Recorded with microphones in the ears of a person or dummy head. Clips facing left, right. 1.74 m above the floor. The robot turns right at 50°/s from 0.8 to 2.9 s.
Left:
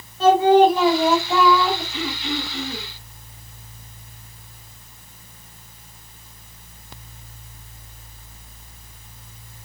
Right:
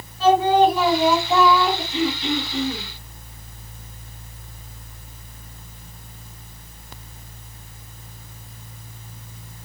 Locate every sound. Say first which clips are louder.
0.2 s singing: left 2 dB; 150° left, 1.2 m; by 1.8 s 160° right, 1.2 m
1.9 s throat clearing: right 5 dB; 140° right, 2.5 m; by 2.9 s 90° right, 2.5 m